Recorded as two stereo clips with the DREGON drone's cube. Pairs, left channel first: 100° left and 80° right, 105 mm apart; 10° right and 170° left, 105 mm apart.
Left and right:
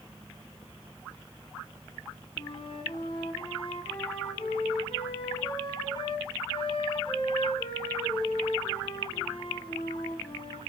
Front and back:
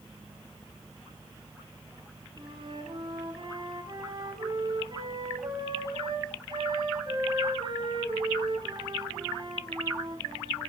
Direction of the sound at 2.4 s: 130° left.